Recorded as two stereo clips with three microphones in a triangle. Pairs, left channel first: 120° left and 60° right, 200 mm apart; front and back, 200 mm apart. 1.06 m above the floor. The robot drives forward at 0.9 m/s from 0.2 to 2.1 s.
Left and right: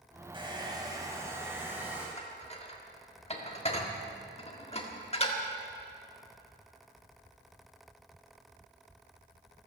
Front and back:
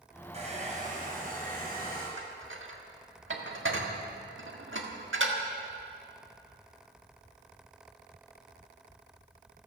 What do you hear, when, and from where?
0.3 s a hair dryer: 125° right, 3 m; by 2.1 s 145° right, 4 m
2.2 s dishes clattering: 175° left, 1.6 m